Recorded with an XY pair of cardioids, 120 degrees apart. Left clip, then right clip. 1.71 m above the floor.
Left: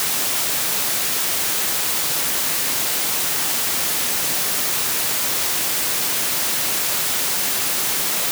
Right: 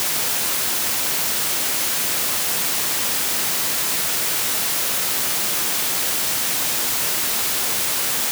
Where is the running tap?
I don't hear a running tap.